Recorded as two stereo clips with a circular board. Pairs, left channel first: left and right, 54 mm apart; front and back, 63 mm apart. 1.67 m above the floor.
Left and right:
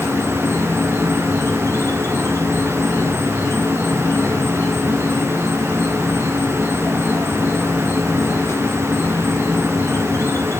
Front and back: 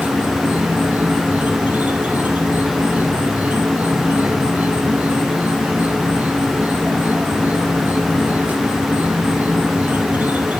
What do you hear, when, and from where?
0.0 s an insect: 120° left, 2.5 m